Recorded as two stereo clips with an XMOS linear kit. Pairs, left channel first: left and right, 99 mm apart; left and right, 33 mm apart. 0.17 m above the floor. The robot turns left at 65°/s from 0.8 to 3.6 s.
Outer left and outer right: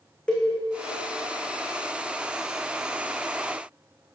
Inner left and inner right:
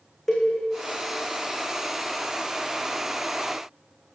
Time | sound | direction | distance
0.3 | a cowbell | 10° left (ahead or behind) | 3 m